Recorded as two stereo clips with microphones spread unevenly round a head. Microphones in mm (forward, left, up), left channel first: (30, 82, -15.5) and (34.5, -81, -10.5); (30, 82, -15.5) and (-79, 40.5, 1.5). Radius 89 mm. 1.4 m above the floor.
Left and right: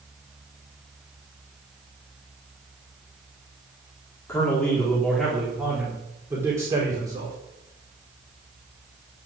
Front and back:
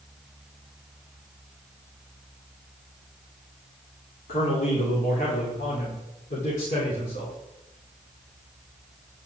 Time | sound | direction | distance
4.3 | a man speaking | 15° left | 3.5 m